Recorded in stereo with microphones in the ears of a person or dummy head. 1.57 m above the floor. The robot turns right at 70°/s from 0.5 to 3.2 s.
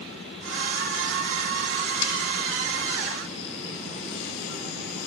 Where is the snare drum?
65° left (ahead or behind), 8.5 m; by 2.1 s 75° left (ahead or behind), 8.5 m.